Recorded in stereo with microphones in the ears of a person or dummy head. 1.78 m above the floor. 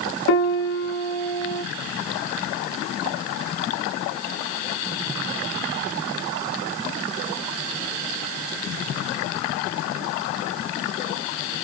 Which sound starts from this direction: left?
A piano, at 0.3 s.